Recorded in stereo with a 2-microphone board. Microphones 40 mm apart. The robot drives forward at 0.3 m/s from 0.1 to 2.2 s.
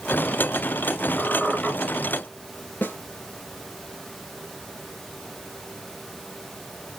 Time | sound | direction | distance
1.2 | a squeak | 35° left (ahead or behind) | 1.8 m
2.8 | a snare drum | 50° left (ahead or behind) | 1.2 m